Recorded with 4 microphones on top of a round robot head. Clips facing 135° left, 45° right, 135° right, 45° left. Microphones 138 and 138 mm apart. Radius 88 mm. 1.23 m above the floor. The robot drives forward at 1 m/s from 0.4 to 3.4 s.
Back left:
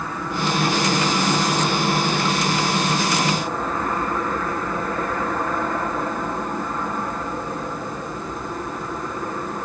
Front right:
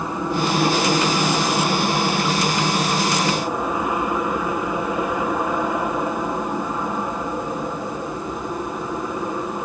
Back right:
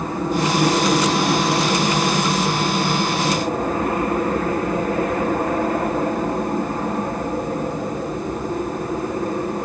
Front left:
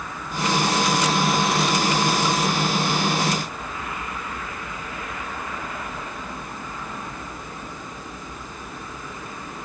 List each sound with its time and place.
0.0 s an aircraft: 110° right; by 9.7 s 120° right